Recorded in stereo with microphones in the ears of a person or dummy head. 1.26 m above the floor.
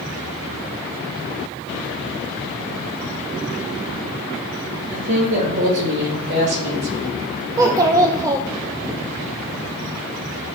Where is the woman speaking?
75° right (ahead or behind), 4 m; by 7.2 s 55° right (ahead or behind), 4 m.